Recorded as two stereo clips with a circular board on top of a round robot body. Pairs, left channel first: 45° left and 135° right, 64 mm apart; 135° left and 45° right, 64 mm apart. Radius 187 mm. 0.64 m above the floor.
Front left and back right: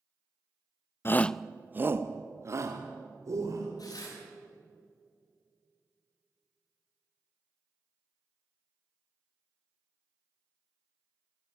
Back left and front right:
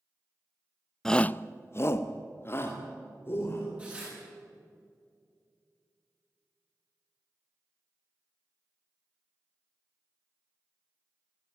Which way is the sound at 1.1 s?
55° left.